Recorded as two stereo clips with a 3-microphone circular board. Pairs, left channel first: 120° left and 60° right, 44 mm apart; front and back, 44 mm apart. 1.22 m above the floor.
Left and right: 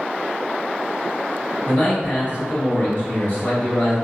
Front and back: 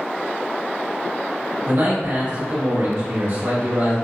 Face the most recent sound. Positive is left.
turn(degrees=170)